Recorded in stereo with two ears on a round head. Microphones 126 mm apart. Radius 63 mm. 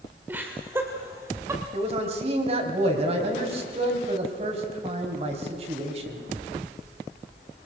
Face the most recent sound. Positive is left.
turn(degrees=-45)  # may be behind; listen again after turning